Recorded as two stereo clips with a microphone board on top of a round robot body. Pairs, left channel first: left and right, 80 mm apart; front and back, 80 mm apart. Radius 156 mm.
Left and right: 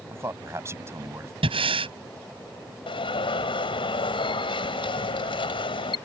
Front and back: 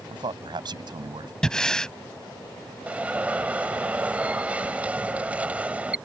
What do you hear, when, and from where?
0.1 s a man speaking: 150° right
1.4 s breathing: 80° right
2.9 s an alarm: 105° left